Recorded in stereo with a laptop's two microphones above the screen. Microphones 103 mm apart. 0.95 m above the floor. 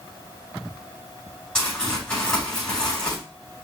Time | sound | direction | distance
1.6 | crumpling | 10° left (ahead or behind) | 4.5 m